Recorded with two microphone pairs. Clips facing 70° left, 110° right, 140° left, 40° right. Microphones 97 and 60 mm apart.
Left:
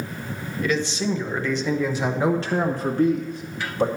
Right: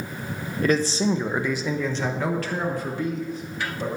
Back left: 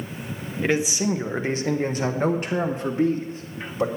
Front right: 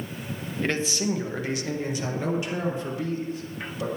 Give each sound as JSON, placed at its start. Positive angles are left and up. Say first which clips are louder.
{"t": 0.6, "sound": "a man speaking", "louder": "right 3 dB, back left 4 dB", "azimuth_deg": -140, "distance_m": 1.0}